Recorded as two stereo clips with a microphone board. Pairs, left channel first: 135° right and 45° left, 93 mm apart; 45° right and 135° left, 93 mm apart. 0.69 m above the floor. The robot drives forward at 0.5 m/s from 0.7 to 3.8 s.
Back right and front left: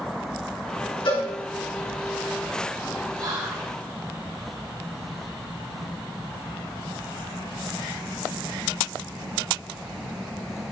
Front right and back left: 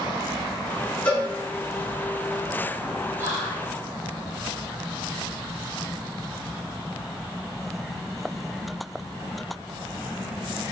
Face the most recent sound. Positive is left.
turn(degrees=90)